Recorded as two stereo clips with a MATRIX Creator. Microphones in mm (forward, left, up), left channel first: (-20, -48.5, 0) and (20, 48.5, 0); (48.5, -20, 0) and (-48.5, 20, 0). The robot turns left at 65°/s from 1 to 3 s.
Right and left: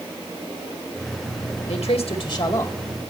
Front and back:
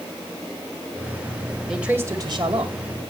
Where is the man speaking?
115° right, 2 m; by 2.9 s 170° left, 2 m.